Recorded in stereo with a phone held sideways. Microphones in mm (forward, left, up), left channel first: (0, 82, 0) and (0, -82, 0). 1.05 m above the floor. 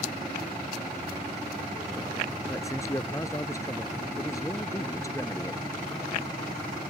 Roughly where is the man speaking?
Centre.